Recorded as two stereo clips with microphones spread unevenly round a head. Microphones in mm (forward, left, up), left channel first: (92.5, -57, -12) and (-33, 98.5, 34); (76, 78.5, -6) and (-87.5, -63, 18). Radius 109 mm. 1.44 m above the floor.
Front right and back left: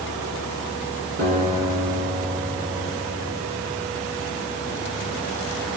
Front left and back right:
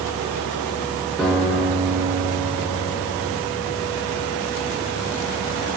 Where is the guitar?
130° left, 3 m.